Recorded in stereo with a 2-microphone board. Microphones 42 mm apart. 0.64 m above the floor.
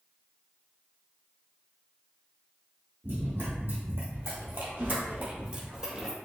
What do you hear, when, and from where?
3.0 s running footsteps: 60° right (ahead or behind), 1.9 m; by 6.1 s 10° right (ahead or behind), 1.3 m